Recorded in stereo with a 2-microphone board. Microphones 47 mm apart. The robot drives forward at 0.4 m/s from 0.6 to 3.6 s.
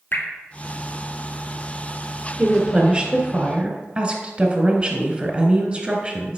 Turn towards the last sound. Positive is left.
turn(degrees=-20)  # may be behind; listen again after turning